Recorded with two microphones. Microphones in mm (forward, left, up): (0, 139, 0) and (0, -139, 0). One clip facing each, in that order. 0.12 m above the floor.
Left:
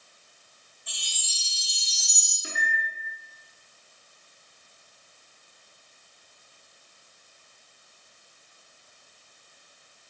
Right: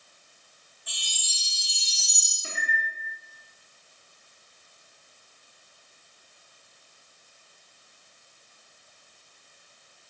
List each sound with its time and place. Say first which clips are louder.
0.9 s a chime: even; centre (ahead or behind), 1.9 m
2.4 s a microwave: left 1 dB; 15° left (ahead or behind), 1.0 m